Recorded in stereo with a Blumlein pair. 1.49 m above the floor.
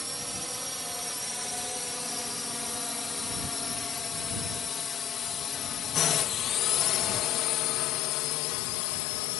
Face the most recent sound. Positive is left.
turn(degrees=45)